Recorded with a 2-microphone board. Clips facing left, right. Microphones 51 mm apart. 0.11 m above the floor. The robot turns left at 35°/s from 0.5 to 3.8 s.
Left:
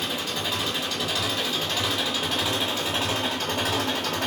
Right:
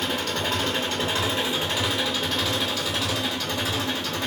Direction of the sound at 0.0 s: 125° right.